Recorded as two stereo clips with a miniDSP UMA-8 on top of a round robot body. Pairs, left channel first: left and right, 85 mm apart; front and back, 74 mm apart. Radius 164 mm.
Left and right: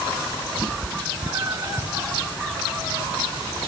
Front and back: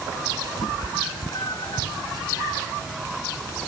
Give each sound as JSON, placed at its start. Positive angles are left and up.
{"t": 0.6, "sound": "a cat meowing", "azimuth_deg": -30}